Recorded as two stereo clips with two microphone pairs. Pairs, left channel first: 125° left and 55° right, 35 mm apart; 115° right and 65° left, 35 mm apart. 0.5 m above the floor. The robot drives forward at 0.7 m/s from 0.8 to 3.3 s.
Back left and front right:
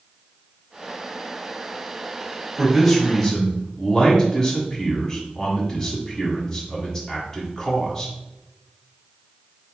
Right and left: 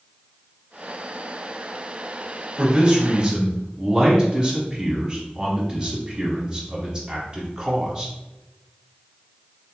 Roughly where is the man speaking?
Ahead left.